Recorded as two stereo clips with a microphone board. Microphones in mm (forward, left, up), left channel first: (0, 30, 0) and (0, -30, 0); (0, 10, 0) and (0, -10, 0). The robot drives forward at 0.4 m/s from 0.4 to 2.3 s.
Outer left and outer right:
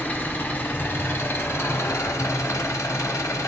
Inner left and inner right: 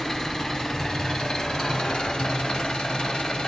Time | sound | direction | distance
0.0 | an engine running | 35° left (ahead or behind) | 1.2 m